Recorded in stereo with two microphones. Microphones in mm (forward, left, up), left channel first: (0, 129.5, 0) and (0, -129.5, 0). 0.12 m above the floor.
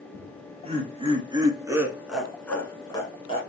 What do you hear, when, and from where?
0.1 s laughter: 30° right (ahead or behind), 2 m; by 3.4 s 25° left (ahead or behind), 1.3 m